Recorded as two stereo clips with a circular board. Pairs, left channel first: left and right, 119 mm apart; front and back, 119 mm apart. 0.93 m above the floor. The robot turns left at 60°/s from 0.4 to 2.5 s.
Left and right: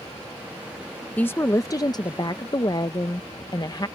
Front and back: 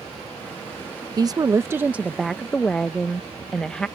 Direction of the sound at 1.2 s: 160° left.